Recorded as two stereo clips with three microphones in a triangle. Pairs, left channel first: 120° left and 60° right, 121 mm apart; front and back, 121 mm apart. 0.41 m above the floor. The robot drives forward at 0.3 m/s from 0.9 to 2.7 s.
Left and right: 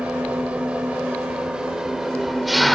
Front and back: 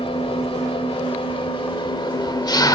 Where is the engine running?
20° left, 1.5 m; by 2.8 s 30° left, 1.1 m.